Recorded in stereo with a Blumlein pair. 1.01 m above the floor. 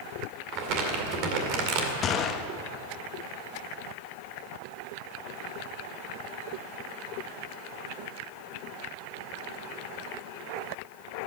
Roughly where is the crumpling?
Ahead right.